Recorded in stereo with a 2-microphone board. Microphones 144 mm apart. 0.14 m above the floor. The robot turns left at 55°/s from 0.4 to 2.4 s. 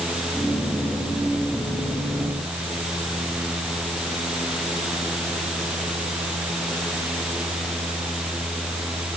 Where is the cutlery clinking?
I don't hear cutlery clinking.